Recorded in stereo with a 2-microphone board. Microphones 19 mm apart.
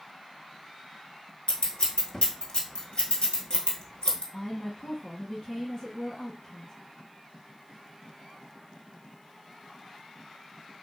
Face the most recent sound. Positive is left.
turn(degrees=45)  # may be behind; listen again after turning